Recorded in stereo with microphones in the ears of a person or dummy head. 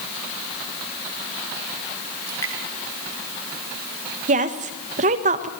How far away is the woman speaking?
About 1.5 m.